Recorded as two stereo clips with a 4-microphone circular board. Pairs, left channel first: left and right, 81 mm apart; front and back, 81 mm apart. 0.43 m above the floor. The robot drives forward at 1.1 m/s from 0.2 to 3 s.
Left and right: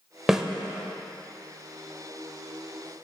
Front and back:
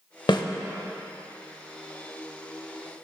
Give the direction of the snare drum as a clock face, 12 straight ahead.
12 o'clock.